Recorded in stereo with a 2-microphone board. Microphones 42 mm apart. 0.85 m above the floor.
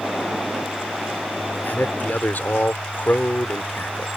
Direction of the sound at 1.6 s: 50° left (ahead or behind).